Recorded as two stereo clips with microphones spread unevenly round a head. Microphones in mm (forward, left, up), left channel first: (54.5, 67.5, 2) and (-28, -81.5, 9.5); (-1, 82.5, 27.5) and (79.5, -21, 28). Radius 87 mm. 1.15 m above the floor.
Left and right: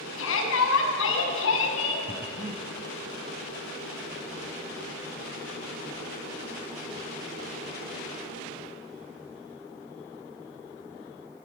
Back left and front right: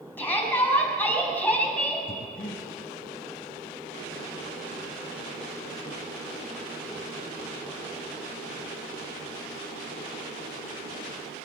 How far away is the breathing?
About 1.4 m.